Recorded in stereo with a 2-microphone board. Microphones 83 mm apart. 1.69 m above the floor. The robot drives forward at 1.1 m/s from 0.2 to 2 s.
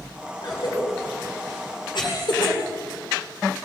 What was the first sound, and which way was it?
A cough, 55° left (ahead or behind).